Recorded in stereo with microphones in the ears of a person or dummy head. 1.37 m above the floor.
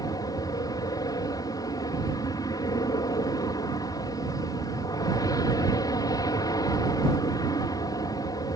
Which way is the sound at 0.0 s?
20° left (ahead or behind).